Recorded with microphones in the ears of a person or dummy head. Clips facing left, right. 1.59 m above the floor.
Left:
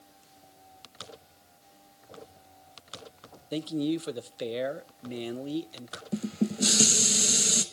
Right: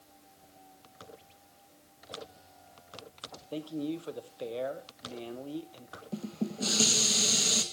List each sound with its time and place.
3.5 s a man speaking: 30° left (ahead or behind), 0.9 m
6.1 s dishes clattering: 20° left (ahead or behind), 1.1 m